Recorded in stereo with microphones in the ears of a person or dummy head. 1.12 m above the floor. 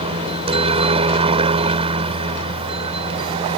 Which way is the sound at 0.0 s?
25° right (ahead or behind).